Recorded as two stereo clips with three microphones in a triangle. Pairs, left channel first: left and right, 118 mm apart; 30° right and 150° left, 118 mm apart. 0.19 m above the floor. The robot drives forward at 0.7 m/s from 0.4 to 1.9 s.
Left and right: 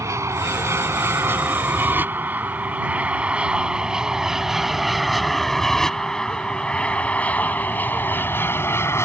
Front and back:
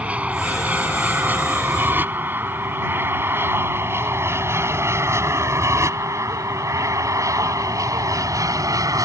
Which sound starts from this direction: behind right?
An aircraft, at 0.0 s.